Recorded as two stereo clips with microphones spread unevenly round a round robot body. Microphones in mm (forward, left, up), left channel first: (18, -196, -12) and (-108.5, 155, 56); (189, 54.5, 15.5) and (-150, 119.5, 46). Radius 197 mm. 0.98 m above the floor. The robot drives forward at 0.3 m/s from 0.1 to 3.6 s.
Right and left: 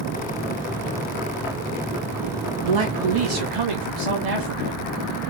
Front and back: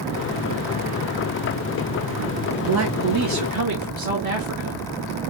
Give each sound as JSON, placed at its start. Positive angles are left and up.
{"t": 2.6, "sound": "a man speaking", "azimuth_deg": 125, "distance_m": 1.5}